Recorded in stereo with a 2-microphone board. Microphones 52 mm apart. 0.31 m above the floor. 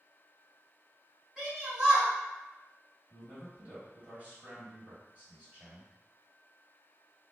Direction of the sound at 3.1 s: 30° right (ahead or behind).